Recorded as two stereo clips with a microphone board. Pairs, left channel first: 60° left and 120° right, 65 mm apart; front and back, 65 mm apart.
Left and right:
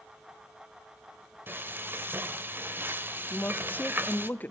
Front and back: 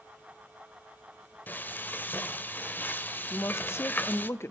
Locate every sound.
1.5 s frying: 60° right, 1.3 m
3.3 s a woman speaking: 15° left, 0.9 m